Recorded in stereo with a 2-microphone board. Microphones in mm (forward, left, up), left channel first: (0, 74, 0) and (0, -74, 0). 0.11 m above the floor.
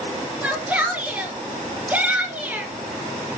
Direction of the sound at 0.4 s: 10° right (ahead or behind).